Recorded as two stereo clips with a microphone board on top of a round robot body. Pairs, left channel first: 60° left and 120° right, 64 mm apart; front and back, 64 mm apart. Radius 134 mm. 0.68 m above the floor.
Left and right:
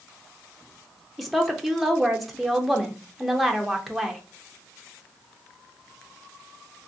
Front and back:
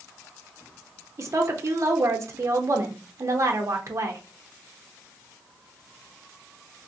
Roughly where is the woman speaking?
Behind left.